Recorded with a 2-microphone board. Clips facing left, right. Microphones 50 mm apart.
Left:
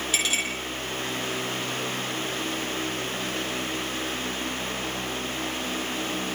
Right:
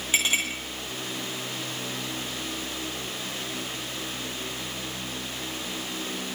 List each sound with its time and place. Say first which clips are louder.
0.1 s a clink: right 3 dB; 30° right (ahead or behind), 9.5 m